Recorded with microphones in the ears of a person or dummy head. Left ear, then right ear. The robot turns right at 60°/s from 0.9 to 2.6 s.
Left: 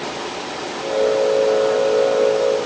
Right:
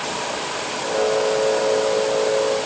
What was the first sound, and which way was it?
Only background noise.